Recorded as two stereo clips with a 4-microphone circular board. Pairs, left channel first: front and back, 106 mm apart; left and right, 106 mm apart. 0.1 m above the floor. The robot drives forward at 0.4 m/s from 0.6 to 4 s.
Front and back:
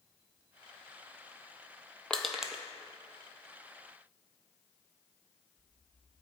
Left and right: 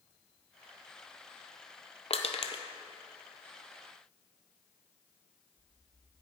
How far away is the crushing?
About 0.7 m.